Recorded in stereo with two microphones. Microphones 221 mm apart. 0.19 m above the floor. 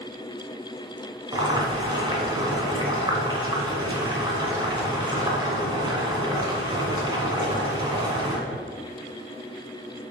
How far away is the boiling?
About 1.9 m.